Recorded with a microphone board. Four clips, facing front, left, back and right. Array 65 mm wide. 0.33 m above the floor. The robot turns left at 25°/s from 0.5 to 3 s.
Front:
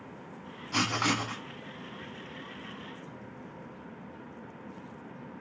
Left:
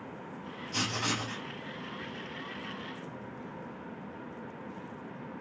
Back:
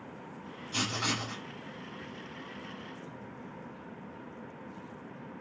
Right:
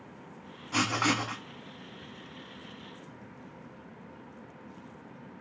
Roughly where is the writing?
Ahead right.